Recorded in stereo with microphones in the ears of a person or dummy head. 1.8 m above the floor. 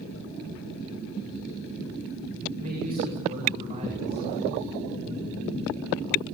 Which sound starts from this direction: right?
A man speaking, at 2.6 s.